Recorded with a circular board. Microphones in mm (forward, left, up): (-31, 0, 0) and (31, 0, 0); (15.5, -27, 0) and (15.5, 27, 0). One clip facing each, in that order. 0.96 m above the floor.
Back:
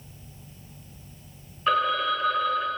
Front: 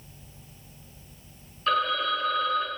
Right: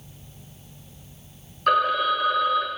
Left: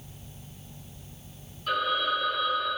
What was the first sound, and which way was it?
A phone ringing, 105° right.